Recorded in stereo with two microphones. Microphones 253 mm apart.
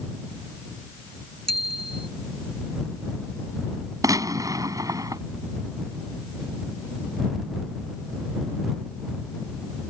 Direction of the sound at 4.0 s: 15° right (ahead or behind).